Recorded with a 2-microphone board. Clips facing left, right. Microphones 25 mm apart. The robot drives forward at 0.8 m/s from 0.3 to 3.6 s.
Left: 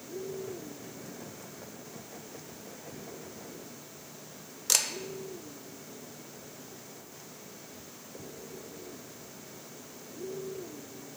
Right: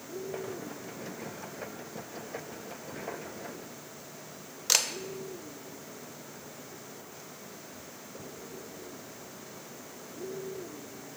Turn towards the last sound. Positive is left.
turn(degrees=-20)  # may be behind; listen again after turning